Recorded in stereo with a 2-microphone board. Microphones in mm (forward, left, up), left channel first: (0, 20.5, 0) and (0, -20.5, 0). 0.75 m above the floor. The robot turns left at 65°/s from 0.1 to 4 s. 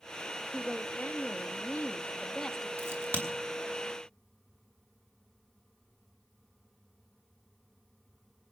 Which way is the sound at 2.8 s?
80° right.